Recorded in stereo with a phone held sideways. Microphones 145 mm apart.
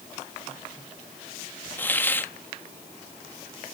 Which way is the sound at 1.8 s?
15° left (ahead or behind).